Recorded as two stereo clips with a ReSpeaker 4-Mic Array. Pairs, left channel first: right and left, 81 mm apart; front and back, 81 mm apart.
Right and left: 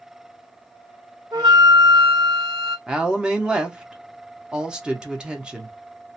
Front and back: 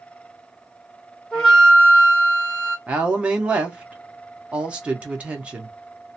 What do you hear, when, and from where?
1.3 s a flute: 80° left, 1.6 m
2.9 s a woman speaking: 145° left, 0.7 m